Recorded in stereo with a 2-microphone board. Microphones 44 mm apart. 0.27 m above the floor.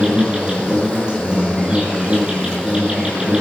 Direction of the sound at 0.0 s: 20° right (ahead or behind).